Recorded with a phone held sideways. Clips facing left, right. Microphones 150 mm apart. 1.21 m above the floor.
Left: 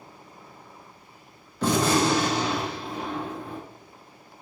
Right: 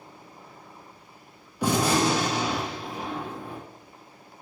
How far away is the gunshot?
About 0.7 m.